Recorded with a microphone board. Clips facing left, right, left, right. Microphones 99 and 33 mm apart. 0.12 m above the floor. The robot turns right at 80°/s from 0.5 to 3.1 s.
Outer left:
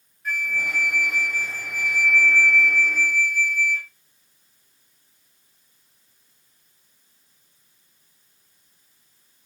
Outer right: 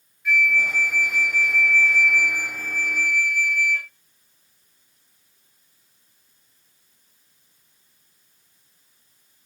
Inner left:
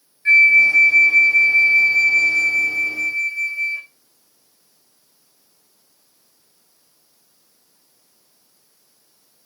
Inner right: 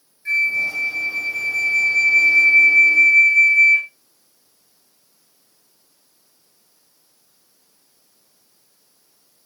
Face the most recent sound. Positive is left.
turn(degrees=-100)